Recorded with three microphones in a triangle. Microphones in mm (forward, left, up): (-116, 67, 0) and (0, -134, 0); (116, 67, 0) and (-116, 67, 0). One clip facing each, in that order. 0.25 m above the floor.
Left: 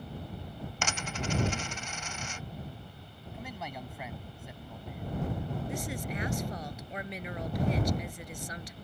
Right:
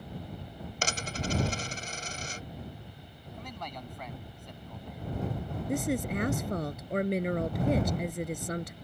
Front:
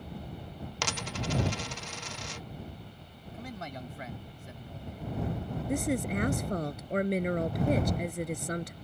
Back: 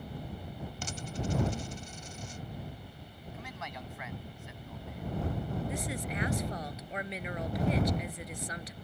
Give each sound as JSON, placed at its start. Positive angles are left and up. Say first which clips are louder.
{"t": 0.8, "sound": "a dropped coin", "louder": "right 2 dB, front 2 dB", "azimuth_deg": -10}
{"t": 3.3, "sound": "a man speaking", "louder": "left 1 dB, front 5 dB", "azimuth_deg": 40}
{"t": 5.7, "sound": "a woman speaking", "louder": "right 7 dB, front 8 dB", "azimuth_deg": -35}